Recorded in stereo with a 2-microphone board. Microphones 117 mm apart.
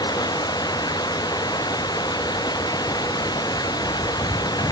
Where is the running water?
35° left (ahead or behind).